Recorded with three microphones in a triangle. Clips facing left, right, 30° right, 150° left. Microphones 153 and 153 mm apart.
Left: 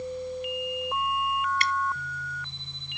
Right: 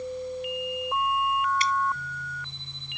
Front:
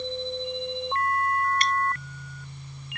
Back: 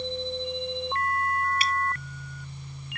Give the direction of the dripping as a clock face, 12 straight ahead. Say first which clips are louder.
Right 2 dB, front 2 dB; 10 o'clock.